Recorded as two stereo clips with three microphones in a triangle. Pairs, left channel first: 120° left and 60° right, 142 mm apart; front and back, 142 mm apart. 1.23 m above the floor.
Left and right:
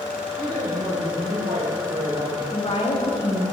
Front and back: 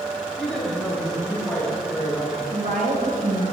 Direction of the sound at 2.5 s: 170° left.